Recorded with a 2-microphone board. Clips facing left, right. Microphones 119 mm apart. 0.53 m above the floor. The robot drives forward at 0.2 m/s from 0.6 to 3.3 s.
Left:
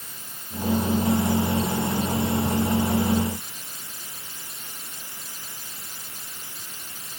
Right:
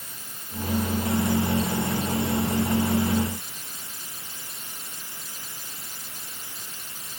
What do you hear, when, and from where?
Only background noise.